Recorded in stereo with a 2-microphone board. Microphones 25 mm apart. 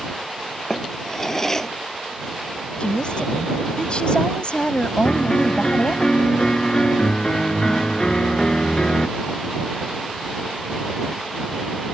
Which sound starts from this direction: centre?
A drawer, at 0.7 s.